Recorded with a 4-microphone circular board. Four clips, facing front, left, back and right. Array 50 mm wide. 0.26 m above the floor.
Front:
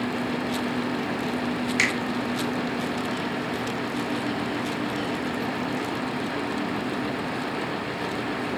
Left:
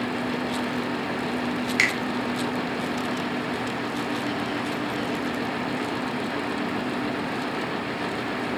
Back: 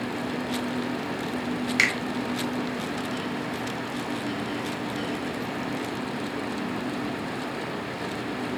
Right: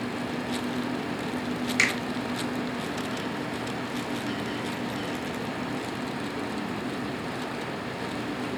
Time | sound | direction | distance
1.8 | a finger snap | 125° left | 0.9 m